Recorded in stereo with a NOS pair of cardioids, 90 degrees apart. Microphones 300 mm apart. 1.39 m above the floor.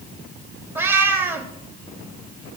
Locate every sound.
0.8 s a cat meowing: 5° right, 1.7 m